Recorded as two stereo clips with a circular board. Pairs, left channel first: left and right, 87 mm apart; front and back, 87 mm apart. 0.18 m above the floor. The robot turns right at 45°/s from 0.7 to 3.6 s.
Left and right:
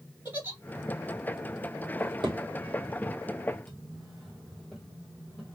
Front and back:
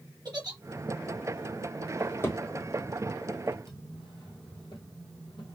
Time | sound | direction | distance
0.2 | a giggle | 150° right | 3 m
2.0 | a drawer | 75° right | 1.8 m